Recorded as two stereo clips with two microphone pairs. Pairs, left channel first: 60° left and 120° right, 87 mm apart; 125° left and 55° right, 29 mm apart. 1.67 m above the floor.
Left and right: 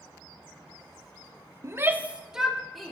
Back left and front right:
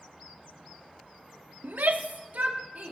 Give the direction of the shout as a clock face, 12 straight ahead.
2 o'clock.